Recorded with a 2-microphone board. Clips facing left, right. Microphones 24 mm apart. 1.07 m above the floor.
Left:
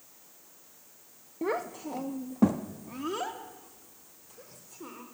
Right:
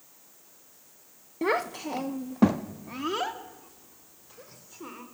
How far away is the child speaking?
About 0.6 m.